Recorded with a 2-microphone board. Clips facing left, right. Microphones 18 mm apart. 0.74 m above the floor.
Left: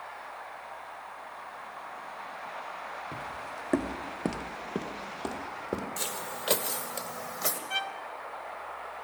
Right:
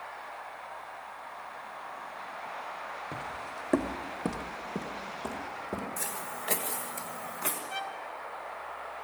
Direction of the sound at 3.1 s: 40° right (ahead or behind).